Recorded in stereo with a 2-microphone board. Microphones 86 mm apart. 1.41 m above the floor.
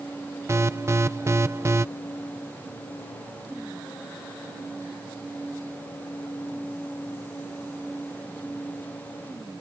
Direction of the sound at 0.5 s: 35° right (ahead or behind).